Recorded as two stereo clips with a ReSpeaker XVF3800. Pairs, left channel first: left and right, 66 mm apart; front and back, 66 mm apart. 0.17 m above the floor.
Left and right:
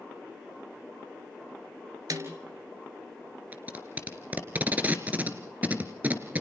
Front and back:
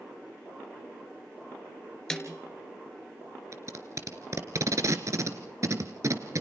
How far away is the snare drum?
About 2.5 m.